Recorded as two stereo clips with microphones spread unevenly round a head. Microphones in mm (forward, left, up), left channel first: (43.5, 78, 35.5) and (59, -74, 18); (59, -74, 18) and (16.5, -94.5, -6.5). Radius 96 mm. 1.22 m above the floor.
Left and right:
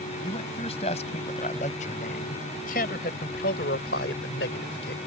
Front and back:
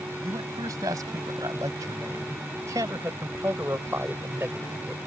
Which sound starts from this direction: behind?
A man speaking, at 0.2 s.